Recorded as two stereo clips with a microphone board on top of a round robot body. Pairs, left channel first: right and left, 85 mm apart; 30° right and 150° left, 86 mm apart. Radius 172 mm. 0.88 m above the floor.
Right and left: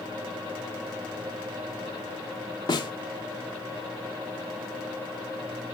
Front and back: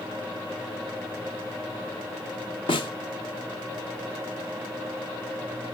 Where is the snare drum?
55° right, 1.0 m.